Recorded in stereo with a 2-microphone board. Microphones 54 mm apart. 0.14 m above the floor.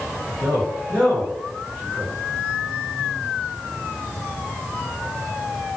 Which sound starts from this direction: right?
A man speaking, at 0.4 s.